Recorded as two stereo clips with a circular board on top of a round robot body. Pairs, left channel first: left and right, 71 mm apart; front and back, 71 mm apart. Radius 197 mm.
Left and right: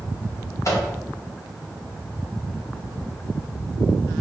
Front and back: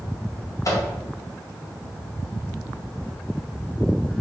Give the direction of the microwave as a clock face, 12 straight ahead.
11 o'clock.